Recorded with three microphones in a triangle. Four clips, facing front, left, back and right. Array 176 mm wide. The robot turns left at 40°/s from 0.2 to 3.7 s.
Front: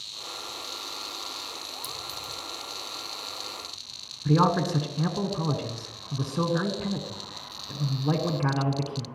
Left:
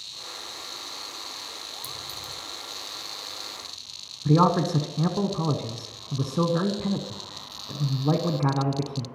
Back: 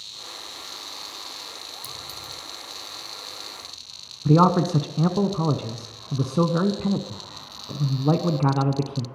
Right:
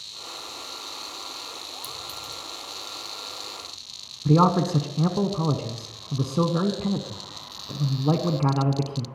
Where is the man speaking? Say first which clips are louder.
Right 1 dB, back 5 dB; 165° right, 1.2 m.